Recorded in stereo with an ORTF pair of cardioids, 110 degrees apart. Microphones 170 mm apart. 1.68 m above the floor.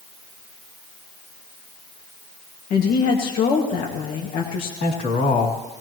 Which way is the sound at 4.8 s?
60° left.